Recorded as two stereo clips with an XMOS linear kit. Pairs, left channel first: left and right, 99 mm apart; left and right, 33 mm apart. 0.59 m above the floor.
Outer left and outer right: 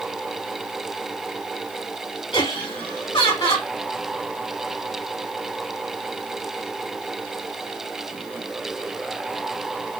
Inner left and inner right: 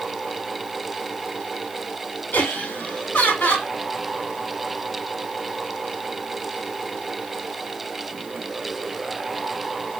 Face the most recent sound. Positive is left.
turn(degrees=60)  # may be behind; listen again after turning